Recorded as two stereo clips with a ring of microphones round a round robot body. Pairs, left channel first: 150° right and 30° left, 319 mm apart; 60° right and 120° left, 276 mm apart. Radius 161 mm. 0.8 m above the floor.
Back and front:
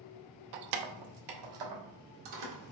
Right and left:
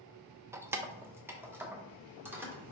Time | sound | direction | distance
0.5 | keys jangling | 40° left | 0.5 m